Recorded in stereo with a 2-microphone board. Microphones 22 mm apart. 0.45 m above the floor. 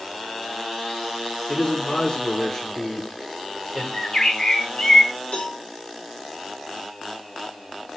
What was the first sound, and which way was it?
A man speaking, 35° left (ahead or behind).